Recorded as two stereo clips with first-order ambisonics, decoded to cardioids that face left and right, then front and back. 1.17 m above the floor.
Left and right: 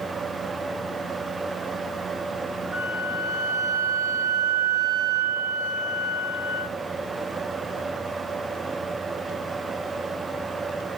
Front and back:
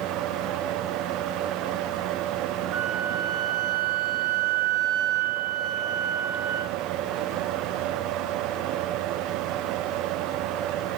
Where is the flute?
140° right, 2.5 m.